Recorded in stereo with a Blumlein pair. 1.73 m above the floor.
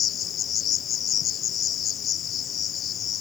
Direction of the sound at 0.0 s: 25° left.